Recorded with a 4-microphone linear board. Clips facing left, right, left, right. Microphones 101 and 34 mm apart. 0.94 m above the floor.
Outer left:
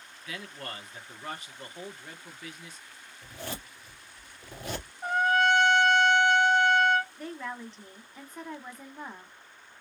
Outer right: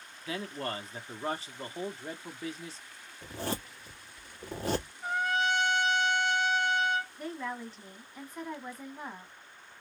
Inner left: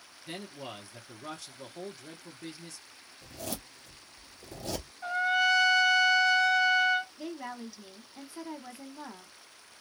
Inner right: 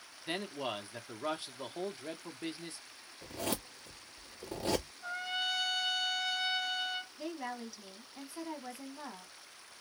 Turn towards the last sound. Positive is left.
turn(degrees=5)  # may be behind; listen again after turning